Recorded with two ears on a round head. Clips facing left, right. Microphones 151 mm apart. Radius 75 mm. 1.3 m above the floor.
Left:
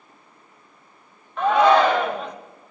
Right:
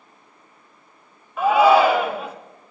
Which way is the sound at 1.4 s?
5° right (ahead or behind).